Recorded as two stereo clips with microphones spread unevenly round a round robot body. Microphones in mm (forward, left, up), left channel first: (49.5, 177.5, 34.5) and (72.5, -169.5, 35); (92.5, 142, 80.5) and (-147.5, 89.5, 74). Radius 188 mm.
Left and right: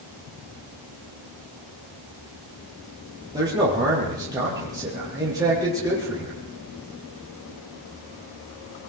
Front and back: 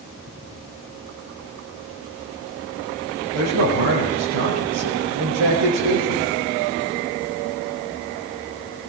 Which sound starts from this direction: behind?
A man speaking, at 3.3 s.